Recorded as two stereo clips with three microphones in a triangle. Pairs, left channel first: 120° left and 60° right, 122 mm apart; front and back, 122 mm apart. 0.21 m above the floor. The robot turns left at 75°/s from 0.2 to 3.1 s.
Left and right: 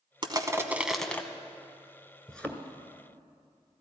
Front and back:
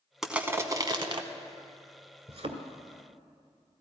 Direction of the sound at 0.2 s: 95° right.